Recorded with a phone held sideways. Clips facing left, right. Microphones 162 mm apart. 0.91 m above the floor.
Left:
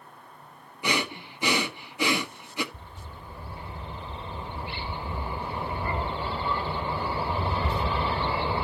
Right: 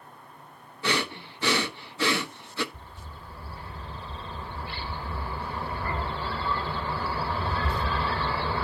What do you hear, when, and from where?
0.8 s breathing: 15° left (ahead or behind), 1.3 m
2.7 s a bird: 20° left (ahead or behind), 0.7 m